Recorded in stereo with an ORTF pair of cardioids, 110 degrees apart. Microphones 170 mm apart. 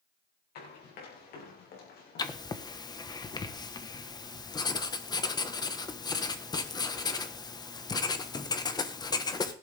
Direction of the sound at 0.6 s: 70° left.